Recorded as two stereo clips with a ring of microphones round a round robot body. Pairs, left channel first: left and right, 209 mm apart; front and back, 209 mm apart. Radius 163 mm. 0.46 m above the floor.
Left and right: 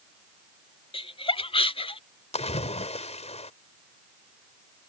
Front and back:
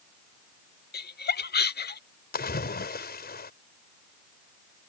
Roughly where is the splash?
Ahead left.